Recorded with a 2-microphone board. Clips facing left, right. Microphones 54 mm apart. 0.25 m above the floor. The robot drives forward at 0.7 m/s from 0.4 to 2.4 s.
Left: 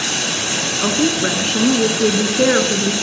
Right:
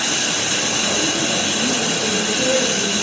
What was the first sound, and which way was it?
A woman speaking, 60° left (ahead or behind).